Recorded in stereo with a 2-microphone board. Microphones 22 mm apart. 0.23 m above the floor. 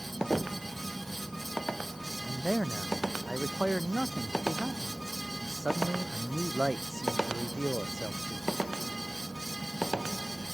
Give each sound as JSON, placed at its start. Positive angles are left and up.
{"t": 0.3, "sound": "knocking", "side_deg": 45}
{"t": 2.3, "sound": "a man speaking", "side_deg": 10}